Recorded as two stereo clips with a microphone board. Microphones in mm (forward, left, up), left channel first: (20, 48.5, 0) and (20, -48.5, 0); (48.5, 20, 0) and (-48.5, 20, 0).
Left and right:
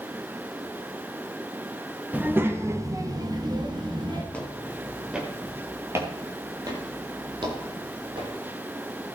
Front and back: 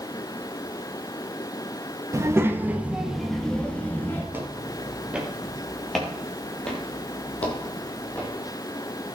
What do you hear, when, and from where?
2.1 s a child speaking: 150° right, 1.0 m; by 4.2 s 65° right, 1.4 m
4.3 s footsteps: 150° left, 1.7 m; by 8.3 s 70° right, 3 m